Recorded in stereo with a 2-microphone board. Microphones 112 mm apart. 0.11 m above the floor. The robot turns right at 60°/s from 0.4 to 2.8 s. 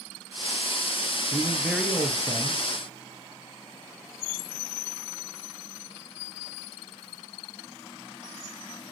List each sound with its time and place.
1.3 s a man speaking: 25° right, 2.0 m; by 2.6 s 50° left, 2.0 m